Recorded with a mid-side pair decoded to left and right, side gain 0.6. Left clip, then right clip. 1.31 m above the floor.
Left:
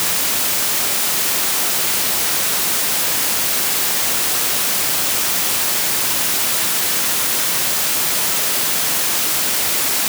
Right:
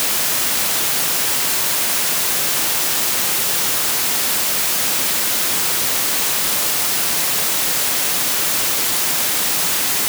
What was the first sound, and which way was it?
Only background noise.